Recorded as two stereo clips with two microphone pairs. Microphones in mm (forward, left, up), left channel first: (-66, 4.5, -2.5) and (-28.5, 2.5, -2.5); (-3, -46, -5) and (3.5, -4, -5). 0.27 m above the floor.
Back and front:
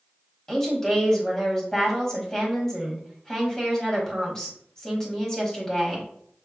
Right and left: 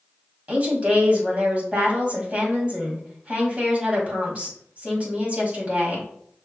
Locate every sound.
0.5 s a woman speaking: 110° left, 1.7 m